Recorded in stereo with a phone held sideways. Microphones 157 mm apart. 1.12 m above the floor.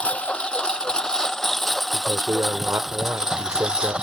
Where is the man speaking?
20° right (ahead or behind).